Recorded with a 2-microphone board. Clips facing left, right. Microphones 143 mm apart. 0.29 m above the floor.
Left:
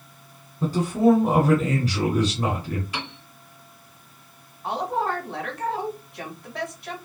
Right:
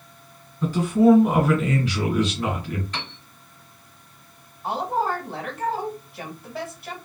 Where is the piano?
10° left (ahead or behind), 1.4 m.